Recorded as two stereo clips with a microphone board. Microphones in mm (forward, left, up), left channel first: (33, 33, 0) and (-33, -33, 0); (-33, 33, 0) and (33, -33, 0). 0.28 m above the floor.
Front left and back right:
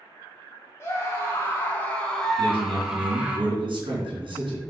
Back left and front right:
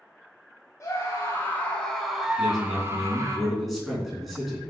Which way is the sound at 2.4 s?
135° right.